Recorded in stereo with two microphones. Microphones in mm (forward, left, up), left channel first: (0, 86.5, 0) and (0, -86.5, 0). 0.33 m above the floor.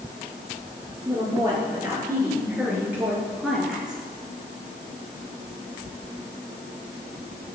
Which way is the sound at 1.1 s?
25° right (ahead or behind).